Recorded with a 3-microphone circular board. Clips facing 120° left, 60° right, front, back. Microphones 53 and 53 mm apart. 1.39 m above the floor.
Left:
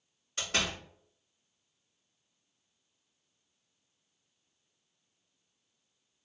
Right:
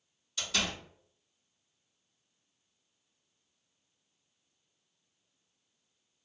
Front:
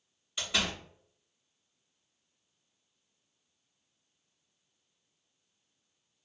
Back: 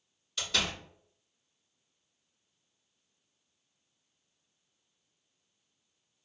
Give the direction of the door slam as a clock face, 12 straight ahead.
10 o'clock.